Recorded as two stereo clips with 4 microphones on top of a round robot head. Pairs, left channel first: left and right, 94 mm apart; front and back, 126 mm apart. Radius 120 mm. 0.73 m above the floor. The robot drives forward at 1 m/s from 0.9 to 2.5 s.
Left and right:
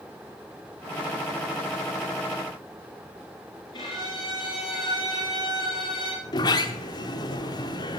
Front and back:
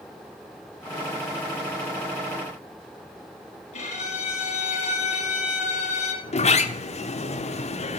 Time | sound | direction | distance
3.7 | a violin | 35° left | 3 m
6.2 | a sliding door | 35° left | 0.9 m